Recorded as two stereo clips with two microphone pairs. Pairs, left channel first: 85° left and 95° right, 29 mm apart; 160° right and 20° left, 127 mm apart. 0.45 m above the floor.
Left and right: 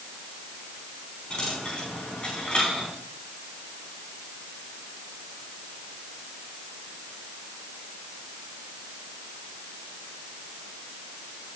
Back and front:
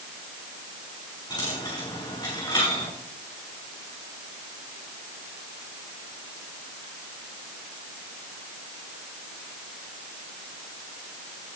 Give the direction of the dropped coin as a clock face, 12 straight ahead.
7 o'clock.